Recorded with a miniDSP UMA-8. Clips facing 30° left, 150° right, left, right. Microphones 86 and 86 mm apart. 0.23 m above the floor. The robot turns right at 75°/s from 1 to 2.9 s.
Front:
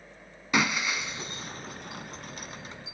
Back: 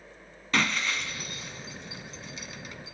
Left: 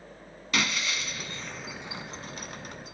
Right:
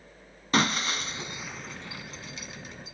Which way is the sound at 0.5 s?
45° right.